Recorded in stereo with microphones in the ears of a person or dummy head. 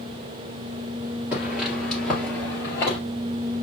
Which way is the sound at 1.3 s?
10° right (ahead or behind).